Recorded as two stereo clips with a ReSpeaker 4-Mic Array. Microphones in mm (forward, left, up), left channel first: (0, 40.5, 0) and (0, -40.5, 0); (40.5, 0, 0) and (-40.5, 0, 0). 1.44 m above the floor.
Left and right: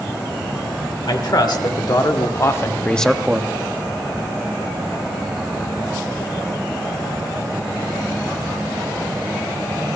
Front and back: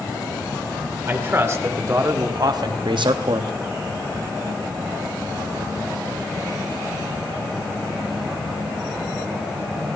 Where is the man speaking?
120° left, 1.7 m; by 3.5 s 150° right, 0.6 m.